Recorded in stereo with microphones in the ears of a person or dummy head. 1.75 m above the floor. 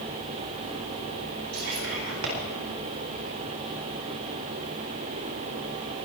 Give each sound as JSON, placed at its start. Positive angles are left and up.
{"t": 1.5, "sound": "whispering", "side_deg": -85, "distance_m": 9.5}